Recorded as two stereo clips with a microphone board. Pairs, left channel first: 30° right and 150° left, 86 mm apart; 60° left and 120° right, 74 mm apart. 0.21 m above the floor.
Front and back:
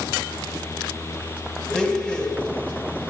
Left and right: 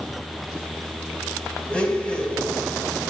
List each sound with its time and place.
1.7 s a blender: 30° left, 1.3 m